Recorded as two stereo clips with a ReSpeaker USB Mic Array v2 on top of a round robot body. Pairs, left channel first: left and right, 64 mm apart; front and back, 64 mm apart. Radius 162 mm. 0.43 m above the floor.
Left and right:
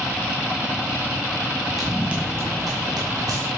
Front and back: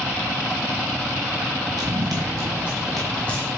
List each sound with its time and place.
1.8 s running footsteps: straight behind, 1.1 m; by 3.5 s 65° right, 1.4 m